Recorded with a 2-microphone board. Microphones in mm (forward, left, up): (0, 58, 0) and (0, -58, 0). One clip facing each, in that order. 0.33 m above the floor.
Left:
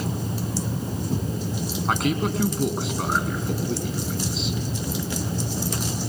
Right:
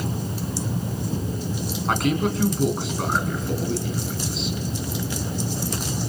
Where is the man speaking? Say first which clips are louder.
Right 2 dB; centre (ahead or behind), 3 m.